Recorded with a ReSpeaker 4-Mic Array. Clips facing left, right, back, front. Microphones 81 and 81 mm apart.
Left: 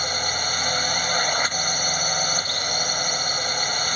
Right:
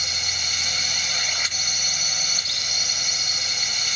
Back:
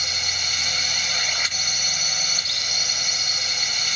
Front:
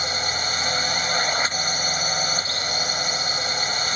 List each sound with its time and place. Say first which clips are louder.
0.0 s a drone: left 7 dB, front 6 dB; 50° left